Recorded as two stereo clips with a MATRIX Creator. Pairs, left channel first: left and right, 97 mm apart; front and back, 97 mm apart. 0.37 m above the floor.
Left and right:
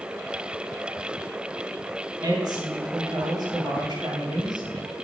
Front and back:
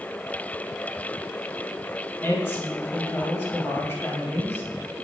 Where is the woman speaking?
60° right, 2.5 m.